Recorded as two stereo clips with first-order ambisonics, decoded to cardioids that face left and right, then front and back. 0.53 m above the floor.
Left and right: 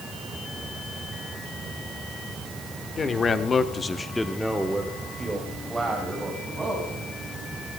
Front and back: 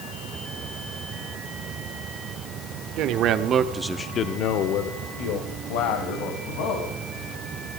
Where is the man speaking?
160° left, 1.2 m; by 6.9 s 10° right, 3.5 m.